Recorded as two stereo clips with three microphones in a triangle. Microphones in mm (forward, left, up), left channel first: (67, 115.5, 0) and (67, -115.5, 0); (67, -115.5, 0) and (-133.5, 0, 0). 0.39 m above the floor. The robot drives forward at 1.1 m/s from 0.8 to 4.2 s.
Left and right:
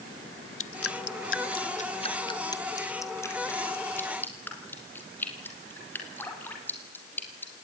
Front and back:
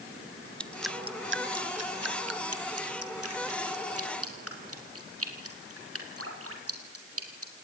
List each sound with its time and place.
0.6 s dripping: 55° left, 0.6 m; by 7.5 s 170° left, 3.5 m